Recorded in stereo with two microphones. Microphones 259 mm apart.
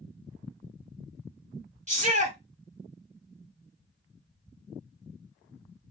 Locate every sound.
1.9 s a shout: 30° right (ahead or behind), 1.9 m